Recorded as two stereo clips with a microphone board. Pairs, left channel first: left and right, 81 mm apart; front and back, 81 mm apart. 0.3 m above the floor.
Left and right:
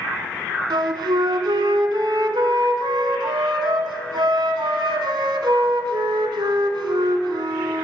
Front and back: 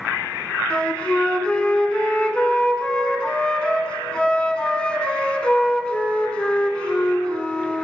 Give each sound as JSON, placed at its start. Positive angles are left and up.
{"t": 0.7, "sound": "a flute", "azimuth_deg": -75, "distance_m": 1.0}